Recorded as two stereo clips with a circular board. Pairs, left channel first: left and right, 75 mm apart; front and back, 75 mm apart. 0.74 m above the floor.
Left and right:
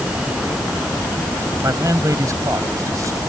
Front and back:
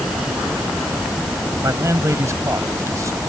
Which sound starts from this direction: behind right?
A man speaking, at 1.6 s.